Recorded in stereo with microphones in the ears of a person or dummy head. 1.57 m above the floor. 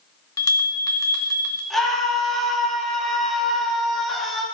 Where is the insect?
No insect in this recording.